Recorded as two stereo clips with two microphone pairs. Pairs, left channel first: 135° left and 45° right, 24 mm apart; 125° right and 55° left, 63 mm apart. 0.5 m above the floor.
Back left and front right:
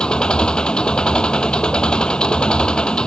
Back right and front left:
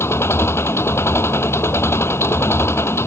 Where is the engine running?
170° right.